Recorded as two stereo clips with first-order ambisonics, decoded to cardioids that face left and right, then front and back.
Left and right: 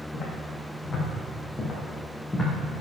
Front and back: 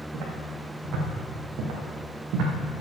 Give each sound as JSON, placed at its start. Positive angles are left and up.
{"t": 0.1, "sound": "footsteps", "azimuth_deg": 150, "distance_m": 4.0}